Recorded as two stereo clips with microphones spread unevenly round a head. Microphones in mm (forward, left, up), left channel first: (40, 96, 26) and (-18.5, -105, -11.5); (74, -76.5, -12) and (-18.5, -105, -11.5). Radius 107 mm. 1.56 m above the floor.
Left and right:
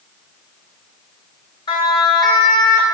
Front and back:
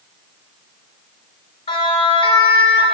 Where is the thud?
No thud in this recording.